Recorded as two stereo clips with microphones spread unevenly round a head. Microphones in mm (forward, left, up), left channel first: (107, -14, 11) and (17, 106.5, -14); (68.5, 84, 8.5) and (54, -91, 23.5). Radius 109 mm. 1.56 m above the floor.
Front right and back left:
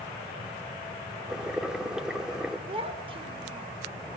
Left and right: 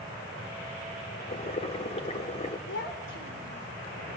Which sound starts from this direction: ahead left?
Boiling, at 1.3 s.